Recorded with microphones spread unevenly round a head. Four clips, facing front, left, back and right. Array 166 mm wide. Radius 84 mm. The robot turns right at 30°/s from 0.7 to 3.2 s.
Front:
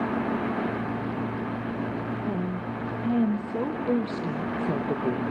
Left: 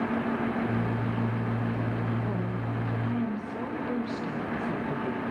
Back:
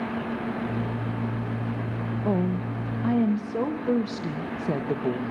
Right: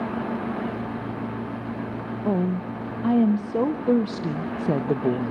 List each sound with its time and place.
2.2 s a woman speaking: 125° right, 1.0 m; by 5.3 s 95° right, 1.0 m